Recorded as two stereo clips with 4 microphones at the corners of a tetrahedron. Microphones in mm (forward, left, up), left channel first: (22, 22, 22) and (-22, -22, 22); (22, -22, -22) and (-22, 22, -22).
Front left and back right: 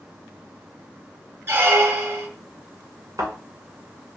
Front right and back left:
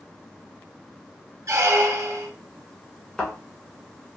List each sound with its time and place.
1.5 s a squeak: 175° left, 0.6 m
3.2 s a thud: 130° right, 1.8 m